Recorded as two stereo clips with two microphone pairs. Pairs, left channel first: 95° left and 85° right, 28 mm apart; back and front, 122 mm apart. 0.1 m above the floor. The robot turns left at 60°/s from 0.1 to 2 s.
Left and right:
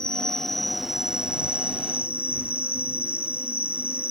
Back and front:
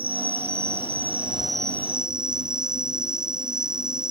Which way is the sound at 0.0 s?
35° left.